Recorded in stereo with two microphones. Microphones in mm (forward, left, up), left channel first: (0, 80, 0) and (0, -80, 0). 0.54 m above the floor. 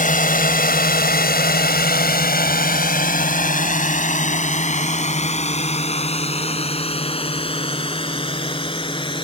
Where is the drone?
55° left (ahead or behind); by 9.2 s 30° left (ahead or behind).